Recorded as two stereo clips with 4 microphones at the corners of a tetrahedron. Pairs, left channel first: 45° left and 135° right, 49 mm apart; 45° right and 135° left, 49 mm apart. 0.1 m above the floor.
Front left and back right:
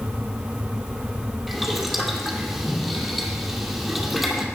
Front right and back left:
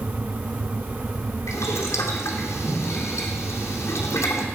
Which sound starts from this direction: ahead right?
Boiling, at 1.5 s.